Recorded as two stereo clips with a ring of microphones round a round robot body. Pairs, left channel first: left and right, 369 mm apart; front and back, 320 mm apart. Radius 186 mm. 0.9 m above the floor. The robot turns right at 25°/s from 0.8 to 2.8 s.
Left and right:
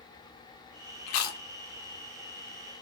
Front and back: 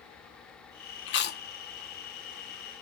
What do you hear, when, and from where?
1.1 s chewing: 55° left, 0.9 m; by 1.4 s 65° left, 0.9 m